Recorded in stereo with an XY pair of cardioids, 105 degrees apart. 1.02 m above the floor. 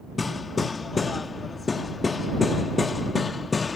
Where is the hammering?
30° left.